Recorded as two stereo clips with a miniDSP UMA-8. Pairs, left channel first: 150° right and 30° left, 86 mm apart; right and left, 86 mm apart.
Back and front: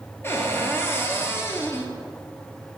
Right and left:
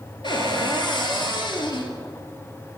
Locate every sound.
0.2 s a cupboard door: 90° right, 0.8 m